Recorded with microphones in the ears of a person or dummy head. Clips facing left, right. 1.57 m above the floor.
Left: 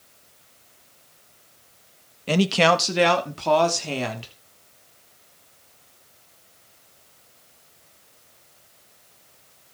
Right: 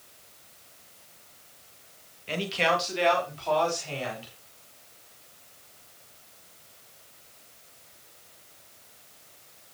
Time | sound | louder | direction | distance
2.3 | a man speaking | left 8 dB | 65° left (ahead or behind) | 1.5 m